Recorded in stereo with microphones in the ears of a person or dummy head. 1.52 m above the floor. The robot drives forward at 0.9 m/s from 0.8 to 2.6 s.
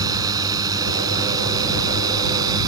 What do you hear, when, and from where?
0.0 s a drone: 20° right (ahead or behind)